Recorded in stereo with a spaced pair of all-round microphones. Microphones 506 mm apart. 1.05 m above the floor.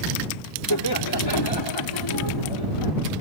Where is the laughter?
40° left (ahead or behind); by 2.9 s 75° left (ahead or behind).